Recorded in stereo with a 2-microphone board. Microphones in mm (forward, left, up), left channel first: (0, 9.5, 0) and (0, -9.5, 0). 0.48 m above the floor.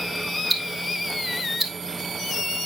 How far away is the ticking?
About 1.7 m.